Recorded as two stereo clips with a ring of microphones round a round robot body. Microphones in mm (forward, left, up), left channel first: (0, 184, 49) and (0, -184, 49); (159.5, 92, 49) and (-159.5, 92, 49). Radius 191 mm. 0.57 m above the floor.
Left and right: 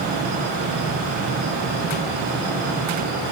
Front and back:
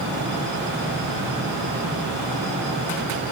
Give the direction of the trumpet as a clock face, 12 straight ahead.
No trumpet in this recording.